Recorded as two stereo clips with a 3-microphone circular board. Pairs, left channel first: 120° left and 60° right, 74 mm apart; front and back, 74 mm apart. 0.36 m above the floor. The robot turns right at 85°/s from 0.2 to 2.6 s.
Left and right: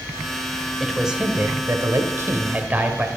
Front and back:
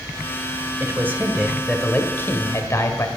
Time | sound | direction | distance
0.8 | a man speaking | 160° right | 1.8 m